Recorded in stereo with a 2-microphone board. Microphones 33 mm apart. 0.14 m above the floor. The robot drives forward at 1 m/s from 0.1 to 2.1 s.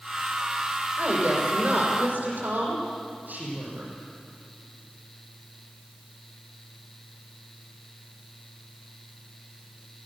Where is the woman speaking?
55° right (ahead or behind), 7.5 m; by 3.9 s 60° right (ahead or behind), 6.5 m.